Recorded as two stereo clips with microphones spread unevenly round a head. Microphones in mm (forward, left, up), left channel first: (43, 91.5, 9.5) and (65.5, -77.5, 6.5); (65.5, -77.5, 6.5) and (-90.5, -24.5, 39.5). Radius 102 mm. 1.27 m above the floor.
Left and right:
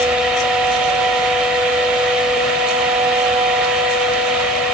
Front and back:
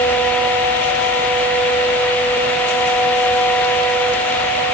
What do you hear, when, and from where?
Only background noise.